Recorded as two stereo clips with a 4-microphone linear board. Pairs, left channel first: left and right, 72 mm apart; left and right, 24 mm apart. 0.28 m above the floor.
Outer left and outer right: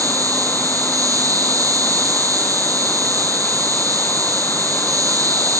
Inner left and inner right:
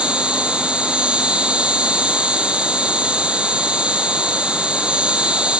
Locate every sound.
0.0 s an insect: 50° right (ahead or behind), 7.5 m